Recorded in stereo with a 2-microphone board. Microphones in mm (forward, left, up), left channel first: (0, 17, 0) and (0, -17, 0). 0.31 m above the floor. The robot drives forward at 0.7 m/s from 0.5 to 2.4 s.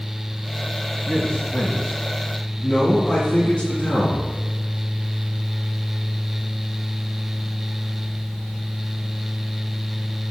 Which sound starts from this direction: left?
A man speaking, at 1.1 s.